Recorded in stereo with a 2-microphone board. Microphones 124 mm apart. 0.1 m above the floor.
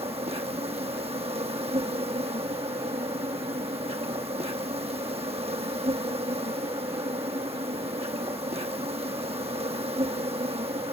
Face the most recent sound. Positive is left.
turn(degrees=-55)  # may be behind; listen again after turning